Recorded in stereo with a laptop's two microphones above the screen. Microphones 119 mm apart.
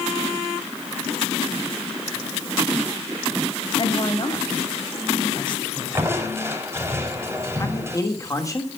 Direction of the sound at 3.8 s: 45° left (ahead or behind).